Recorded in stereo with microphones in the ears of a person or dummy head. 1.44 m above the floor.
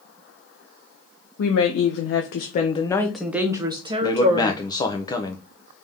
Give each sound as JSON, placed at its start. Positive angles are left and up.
{"t": 1.4, "sound": "a woman speaking", "side_deg": 80, "distance_m": 0.9}
{"t": 4.0, "sound": "a man speaking", "side_deg": 20, "distance_m": 0.7}